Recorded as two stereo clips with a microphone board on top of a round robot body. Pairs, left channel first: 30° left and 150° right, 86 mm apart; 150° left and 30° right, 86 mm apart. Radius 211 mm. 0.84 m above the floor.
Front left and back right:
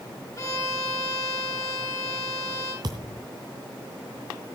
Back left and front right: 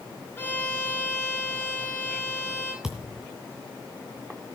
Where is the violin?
80° left, 8 m.